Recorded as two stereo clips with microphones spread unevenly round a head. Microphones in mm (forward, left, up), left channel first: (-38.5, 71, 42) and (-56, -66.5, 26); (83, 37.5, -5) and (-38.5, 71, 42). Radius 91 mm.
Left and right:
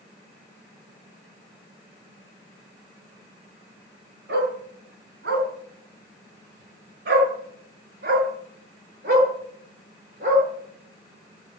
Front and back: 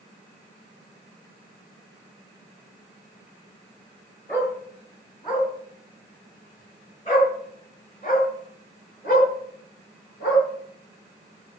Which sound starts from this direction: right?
A dog barking, at 4.3 s.